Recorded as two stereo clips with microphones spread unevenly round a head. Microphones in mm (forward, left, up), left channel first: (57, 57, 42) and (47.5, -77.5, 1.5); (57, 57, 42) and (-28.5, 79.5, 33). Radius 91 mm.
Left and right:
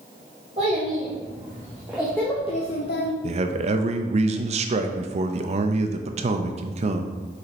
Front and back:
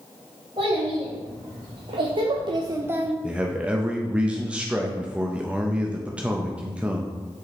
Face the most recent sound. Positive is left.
turn(degrees=-120)